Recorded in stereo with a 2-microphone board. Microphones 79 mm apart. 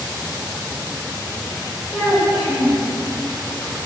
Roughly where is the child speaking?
Centre.